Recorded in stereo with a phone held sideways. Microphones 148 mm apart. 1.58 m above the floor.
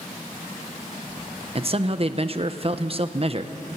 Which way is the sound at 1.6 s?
40° right (ahead or behind).